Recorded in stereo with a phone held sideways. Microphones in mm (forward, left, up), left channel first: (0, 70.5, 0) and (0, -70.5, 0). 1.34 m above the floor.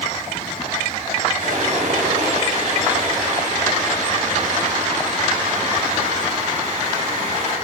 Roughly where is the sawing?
Right.